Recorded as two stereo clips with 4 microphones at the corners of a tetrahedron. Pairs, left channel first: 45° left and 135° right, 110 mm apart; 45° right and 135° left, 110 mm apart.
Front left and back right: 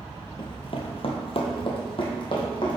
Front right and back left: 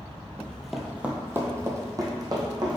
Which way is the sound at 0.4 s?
30° left.